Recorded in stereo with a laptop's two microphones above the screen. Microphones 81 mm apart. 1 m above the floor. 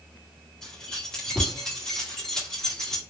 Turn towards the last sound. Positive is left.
turn(degrees=10)  # may be behind; listen again after turning